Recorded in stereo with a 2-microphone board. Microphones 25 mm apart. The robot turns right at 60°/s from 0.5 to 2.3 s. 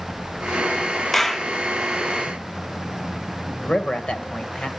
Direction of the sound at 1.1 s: 10° left (ahead or behind).